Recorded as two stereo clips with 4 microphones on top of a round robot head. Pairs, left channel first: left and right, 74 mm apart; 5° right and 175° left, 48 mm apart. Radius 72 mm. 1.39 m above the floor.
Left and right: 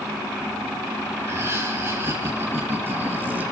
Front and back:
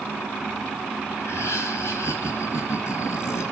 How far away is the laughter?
About 4 m.